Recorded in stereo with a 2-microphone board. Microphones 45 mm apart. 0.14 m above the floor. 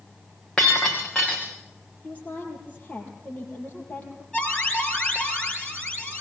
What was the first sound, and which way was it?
Breaking glass, 15° left (ahead or behind).